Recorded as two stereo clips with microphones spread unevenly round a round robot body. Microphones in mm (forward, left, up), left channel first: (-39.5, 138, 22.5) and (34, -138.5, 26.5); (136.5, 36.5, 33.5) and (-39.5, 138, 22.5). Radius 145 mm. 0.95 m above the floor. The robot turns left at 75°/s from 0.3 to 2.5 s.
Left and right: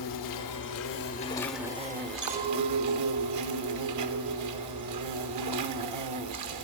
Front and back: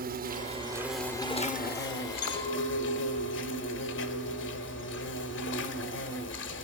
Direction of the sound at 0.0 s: 105° left.